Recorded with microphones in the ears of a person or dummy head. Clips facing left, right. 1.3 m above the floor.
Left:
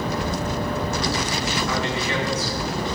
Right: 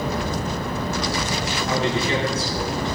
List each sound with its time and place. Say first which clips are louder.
1.7 s a man speaking: right 3 dB; 30° right (ahead or behind), 3 m